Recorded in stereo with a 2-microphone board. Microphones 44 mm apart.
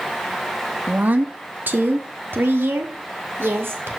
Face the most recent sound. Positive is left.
turn(degrees=-60)  # may be behind; listen again after turning